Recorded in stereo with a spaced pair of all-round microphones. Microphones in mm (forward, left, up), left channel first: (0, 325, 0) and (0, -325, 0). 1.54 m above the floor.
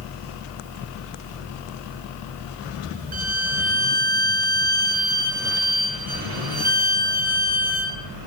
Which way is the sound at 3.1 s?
60° right (ahead or behind).